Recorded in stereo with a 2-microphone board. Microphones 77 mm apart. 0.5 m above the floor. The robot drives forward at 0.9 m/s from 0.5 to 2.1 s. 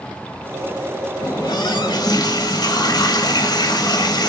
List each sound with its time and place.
1.2 s a running tap: 65° left (ahead or behind), 1.4 m; by 4.3 s 70° left (ahead or behind), 1.4 m